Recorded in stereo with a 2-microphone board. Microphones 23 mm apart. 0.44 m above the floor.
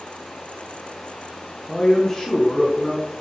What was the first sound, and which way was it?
A man speaking, 20° left (ahead or behind).